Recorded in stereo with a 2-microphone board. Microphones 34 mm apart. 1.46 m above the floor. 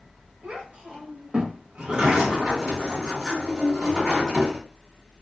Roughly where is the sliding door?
Right.